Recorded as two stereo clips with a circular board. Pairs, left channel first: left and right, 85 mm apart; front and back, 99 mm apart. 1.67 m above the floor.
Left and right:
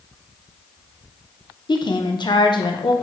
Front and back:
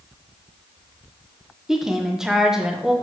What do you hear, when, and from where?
1.7 s a woman speaking: 95° left, 0.8 m